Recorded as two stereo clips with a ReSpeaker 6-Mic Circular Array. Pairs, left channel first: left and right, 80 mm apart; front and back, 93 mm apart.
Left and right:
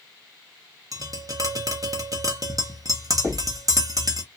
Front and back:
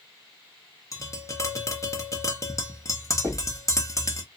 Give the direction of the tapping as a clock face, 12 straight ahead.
2 o'clock.